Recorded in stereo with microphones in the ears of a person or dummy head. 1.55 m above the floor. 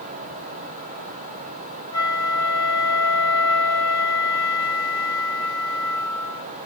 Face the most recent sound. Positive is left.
turn(degrees=20)  # may be behind; listen again after turning